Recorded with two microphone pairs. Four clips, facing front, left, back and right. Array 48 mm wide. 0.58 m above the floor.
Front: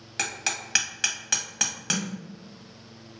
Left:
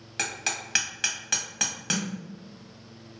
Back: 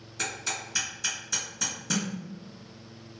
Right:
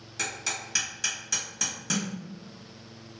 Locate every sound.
0.2 s hammering: 35° left, 1.0 m
1.9 s a snare drum: 140° left, 0.9 m